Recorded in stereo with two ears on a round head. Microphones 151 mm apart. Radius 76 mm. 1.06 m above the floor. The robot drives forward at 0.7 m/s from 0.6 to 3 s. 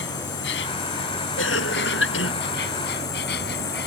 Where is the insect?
80° left; by 3.9 s 70° left (ahead or behind).